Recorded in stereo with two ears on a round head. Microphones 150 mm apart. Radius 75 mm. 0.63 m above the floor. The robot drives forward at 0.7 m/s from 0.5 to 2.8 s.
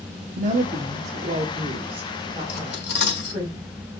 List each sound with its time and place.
0.4 s a woman speaking: 45° right (ahead or behind), 1.0 m; by 3.5 s 25° right (ahead or behind), 1.8 m
2.5 s cutlery clinking: 55° left (ahead or behind), 1.1 m; by 3.4 s 70° left (ahead or behind), 1.0 m